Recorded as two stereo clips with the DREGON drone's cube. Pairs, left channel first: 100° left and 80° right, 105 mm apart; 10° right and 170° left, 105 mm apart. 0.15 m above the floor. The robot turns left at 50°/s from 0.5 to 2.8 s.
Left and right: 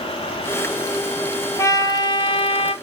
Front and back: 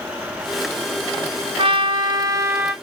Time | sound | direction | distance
1.6 | a trumpet | 155° left | 0.6 m